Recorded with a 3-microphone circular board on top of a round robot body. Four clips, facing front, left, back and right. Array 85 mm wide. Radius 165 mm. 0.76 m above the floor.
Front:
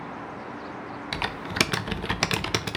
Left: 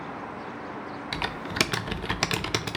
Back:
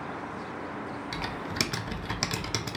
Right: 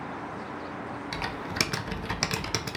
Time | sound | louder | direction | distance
1.1 | typing on a keyboard | left 4 dB, front 7 dB | 25° left | 0.5 m